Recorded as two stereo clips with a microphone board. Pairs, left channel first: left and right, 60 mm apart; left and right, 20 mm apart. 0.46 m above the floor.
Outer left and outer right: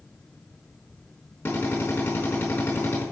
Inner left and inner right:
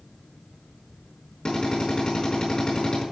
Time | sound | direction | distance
1.4 | a drill | 40° left (ahead or behind) | 4 m